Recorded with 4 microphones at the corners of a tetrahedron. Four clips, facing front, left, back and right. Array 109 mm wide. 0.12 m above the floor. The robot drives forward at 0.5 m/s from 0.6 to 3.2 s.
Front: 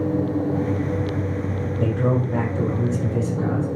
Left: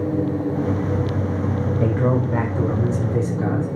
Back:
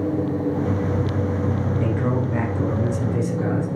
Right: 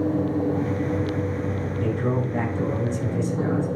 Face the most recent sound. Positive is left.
turn(degrees=70)